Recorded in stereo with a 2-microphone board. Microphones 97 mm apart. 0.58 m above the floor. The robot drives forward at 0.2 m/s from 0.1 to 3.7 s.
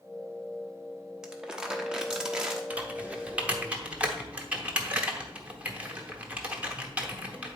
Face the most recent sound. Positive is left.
turn(degrees=-15)  # may be behind; listen again after turning